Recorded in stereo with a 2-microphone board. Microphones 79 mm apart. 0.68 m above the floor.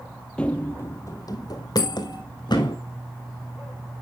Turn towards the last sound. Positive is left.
turn(degrees=50)  # may be behind; listen again after turning